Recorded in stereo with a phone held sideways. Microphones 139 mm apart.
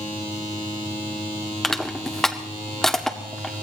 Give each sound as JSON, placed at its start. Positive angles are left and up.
{"t": 1.6, "sound": "crushing", "side_deg": 5, "distance_m": 1.7}